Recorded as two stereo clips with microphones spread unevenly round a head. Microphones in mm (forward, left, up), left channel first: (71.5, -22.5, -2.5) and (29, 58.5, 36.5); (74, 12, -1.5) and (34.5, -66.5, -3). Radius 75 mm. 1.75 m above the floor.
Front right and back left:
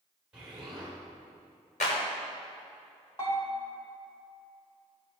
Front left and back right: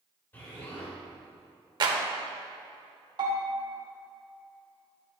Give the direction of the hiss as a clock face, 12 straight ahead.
I don't hear a hiss.